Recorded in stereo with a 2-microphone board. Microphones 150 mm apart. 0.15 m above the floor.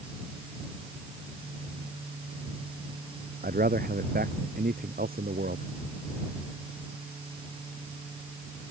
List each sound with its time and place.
3.4 s a man speaking: 80° right; by 5.7 s 85° right